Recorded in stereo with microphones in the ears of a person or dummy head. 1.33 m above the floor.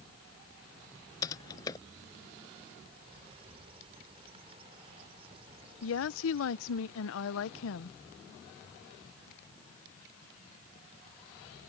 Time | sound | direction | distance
1.2 | typing on a keyboard | 25° left (ahead or behind) | ?
2.9 | a bird | 35° right (ahead or behind) | ?
5.8 | a woman speaking | 85° left | ?